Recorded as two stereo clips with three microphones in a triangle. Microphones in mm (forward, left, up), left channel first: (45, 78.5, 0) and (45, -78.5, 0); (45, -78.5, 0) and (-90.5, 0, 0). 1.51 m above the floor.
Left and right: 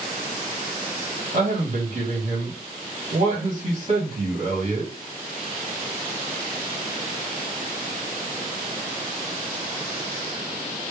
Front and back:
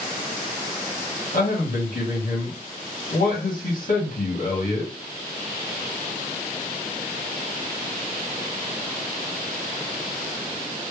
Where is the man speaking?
40° right, 1.7 m.